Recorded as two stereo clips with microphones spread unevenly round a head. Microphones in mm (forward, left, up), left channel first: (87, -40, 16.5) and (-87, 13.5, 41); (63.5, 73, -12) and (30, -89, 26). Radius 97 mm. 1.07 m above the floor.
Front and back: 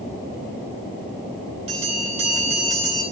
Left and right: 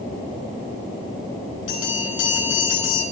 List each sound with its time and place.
1.7 s a bell: 105° left, 9 m